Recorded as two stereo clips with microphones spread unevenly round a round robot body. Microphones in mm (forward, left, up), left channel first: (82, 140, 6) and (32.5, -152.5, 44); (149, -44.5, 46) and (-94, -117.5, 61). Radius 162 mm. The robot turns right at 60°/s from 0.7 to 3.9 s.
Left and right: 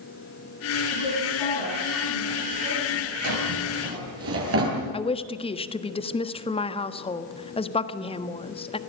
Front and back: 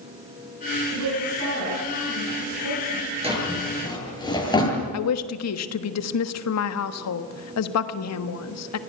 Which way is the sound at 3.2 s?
95° right.